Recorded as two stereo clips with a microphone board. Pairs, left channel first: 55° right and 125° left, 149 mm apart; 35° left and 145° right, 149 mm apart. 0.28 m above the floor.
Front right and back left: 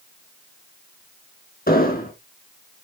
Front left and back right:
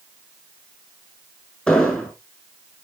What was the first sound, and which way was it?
An explosion, 50° right.